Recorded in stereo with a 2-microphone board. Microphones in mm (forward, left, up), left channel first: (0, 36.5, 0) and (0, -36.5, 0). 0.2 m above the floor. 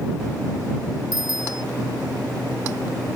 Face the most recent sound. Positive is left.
turn(degrees=-75)  # may be behind; listen again after turning